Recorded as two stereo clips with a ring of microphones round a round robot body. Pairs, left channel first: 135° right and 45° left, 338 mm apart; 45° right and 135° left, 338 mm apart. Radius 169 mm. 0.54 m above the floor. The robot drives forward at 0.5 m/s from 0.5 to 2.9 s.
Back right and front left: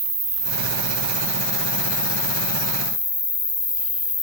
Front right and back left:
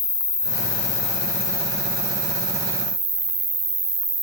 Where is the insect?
10° right, 0.9 m; by 4.2 s 170° right, 1.0 m.